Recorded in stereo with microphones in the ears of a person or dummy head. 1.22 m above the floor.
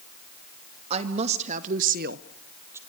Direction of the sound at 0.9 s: 35° right (ahead or behind).